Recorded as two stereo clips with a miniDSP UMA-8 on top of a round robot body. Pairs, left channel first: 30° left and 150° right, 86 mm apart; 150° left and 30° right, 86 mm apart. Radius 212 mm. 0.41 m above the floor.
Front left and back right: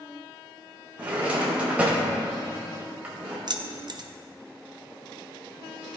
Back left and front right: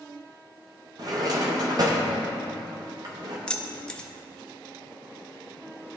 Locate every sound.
1.0 s a drawer: 75° right, 0.7 m
3.5 s keys jangling: 135° right, 0.7 m